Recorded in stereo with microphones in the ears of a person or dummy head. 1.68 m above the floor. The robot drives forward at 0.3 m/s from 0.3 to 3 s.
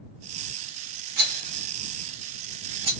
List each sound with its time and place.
1.2 s a rattle: 50° right (ahead or behind), 1.1 m; by 2.9 s 35° right (ahead or behind), 1.5 m